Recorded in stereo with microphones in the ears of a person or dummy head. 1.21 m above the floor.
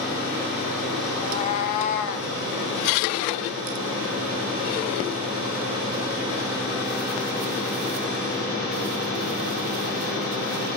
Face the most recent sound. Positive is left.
turn(degrees=60)  # may be behind; listen again after turning